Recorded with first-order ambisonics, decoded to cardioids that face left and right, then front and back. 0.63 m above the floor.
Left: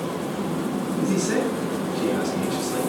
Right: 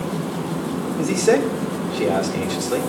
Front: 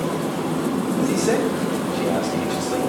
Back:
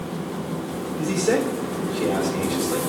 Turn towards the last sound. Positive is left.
turn(degrees=-90)